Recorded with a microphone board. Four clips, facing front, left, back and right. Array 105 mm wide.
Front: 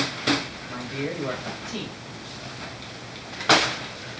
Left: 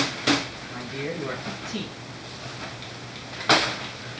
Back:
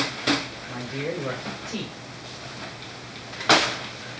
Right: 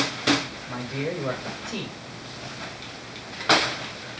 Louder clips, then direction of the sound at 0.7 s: Right 4 dB, even; 110° right.